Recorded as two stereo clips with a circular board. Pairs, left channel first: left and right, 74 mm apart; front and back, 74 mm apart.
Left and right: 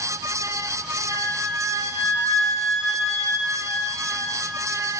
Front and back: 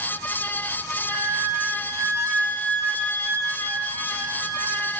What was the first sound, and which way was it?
A flute, 135° left.